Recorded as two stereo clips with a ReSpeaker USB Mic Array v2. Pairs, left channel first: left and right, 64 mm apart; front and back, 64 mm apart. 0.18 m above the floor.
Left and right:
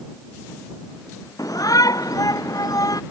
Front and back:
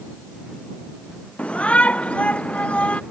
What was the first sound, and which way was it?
A shout, 70° left.